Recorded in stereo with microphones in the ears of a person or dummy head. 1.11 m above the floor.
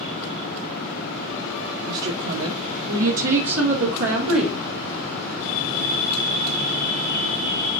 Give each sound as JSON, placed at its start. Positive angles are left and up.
{"t": 1.9, "sound": "a woman speaking", "side_deg": -70, "distance_m": 2.0}